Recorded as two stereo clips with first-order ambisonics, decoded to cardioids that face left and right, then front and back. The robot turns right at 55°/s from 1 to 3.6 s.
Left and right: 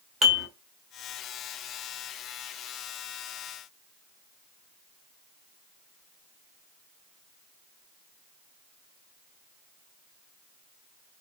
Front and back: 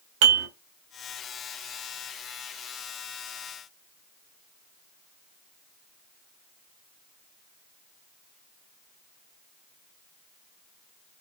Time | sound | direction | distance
0.2 | dishes clattering | 165° right | 1.0 m